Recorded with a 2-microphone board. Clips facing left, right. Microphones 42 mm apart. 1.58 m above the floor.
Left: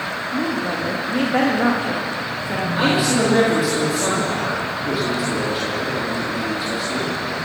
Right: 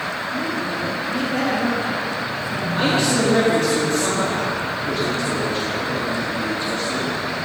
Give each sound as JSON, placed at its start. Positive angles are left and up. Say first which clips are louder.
{"t": 0.3, "sound": "a woman speaking", "louder": "left 4 dB", "side_deg": 40, "distance_m": 2.5}
{"t": 2.8, "sound": "a man speaking", "louder": "left 1 dB", "side_deg": 5, "distance_m": 4.0}